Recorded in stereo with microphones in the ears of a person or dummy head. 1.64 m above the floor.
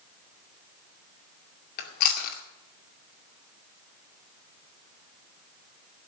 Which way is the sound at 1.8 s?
50° left (ahead or behind).